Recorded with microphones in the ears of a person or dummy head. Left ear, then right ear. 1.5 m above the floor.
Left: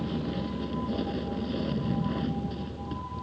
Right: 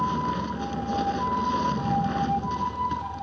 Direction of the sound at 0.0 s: 50° right (ahead or behind).